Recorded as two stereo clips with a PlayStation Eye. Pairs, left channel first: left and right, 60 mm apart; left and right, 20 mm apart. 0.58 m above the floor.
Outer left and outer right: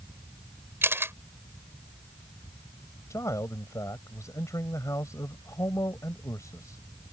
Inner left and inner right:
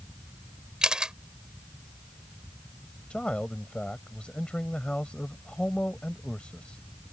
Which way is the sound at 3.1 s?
60° left (ahead or behind).